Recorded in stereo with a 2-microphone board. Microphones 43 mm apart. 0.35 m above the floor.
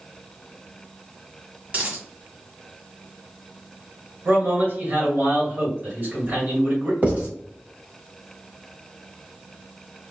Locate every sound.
1.7 s a dropped coin: 35° right (ahead or behind), 1.2 m
4.2 s a man speaking: 45° right (ahead or behind), 1.7 m
7.0 s writing: 35° right (ahead or behind), 1.3 m